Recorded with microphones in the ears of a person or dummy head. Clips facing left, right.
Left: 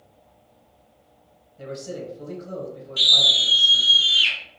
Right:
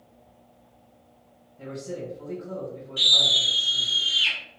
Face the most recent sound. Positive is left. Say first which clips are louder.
# left 1 dB
turn(degrees=60)  # may be behind; listen again after turning